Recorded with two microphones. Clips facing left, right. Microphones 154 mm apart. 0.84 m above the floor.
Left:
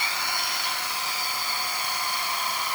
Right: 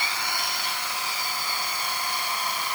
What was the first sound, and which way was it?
Only background noise.